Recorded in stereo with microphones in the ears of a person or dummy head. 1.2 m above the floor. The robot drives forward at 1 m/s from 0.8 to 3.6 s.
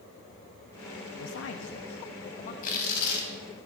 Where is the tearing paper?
55° left (ahead or behind), 3 m; by 3.3 s 65° left (ahead or behind), 2.5 m.